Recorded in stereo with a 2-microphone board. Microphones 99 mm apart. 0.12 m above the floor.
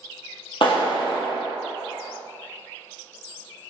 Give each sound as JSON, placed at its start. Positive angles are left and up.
{"t": 0.6, "sound": "a clap", "side_deg": 55, "distance_m": 2.5}